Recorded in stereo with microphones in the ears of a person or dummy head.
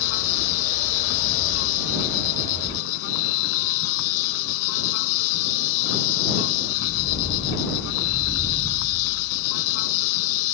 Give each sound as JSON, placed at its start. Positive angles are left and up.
{"t": 0.0, "sound": "an insect", "side_deg": 65}